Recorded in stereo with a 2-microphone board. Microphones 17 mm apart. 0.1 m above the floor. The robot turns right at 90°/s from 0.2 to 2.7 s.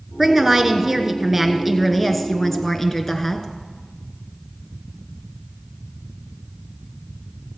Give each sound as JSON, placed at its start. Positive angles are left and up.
{"t": 0.2, "sound": "a woman speaking", "side_deg": -15, "distance_m": 1.1}